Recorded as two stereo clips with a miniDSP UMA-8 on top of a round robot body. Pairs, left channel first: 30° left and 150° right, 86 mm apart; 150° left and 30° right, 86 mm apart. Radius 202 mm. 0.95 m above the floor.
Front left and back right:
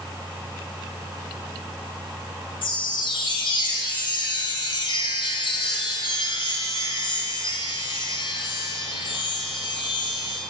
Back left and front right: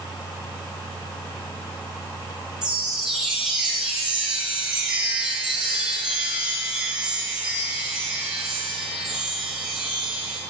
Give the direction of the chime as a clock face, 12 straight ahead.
10 o'clock.